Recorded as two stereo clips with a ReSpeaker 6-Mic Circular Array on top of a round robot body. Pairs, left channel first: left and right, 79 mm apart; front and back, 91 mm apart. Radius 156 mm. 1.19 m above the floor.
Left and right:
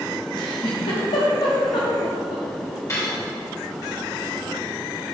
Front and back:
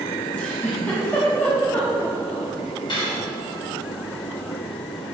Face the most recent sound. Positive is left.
turn(degrees=35)